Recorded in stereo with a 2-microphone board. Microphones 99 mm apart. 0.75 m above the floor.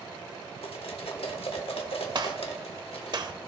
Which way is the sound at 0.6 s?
75° left (ahead or behind).